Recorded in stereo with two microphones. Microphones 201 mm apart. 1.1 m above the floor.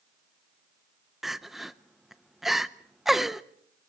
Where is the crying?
Centre (ahead or behind), 0.7 m.